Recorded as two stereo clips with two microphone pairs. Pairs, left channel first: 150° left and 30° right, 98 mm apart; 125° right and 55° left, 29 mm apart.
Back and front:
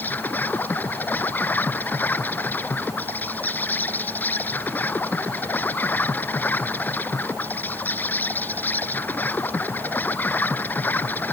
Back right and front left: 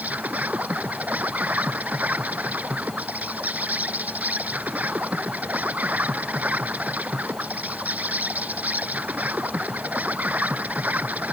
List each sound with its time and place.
0.0 s an insect: 80° left